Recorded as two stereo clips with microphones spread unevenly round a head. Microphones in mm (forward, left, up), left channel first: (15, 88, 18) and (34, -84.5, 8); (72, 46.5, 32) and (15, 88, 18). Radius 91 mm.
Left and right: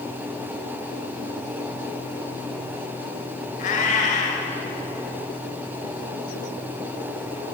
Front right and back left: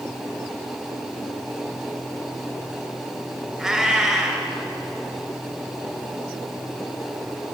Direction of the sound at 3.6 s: 60° left.